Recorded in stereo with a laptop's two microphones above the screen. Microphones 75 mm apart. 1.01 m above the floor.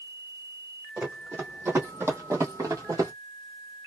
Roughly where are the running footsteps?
Right.